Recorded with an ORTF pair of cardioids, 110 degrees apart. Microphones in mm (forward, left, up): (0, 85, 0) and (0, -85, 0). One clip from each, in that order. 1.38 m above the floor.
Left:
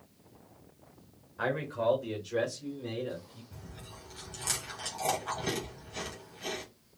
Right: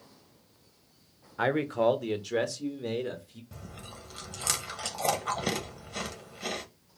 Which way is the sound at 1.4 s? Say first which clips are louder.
Right 5 dB; 40° right.